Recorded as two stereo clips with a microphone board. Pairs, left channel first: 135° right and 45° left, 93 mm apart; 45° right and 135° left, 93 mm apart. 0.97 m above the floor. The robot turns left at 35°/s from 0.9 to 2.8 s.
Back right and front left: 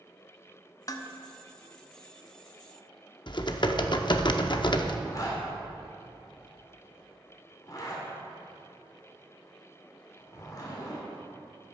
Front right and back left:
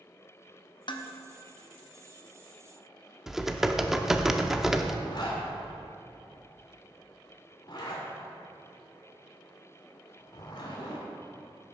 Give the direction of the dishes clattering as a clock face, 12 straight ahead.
3 o'clock.